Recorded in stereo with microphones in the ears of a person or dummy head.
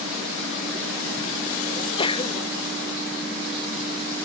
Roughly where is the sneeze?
Left.